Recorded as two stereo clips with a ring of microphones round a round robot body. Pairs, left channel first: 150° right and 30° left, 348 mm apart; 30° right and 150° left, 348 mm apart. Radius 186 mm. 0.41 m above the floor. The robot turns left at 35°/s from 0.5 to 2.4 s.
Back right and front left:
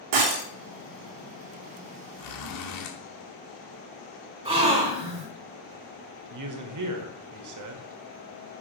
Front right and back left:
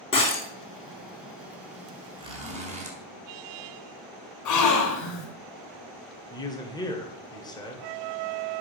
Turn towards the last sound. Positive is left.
turn(degrees=45)